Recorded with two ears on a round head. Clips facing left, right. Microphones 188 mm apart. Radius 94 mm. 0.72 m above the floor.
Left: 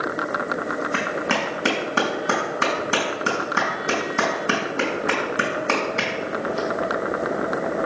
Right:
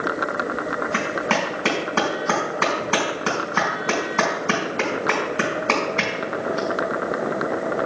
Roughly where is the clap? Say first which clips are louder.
Right 2 dB; centre.